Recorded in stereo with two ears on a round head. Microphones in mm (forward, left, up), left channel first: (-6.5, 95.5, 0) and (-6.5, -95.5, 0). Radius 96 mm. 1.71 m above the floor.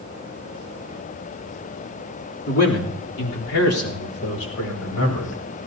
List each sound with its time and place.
2.5 s a man speaking: 75° left (ahead or behind), 3 m